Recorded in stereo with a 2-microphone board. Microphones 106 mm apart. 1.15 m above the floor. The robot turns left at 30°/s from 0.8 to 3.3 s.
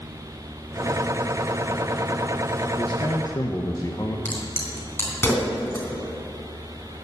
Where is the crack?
20° left (ahead or behind), 3 m.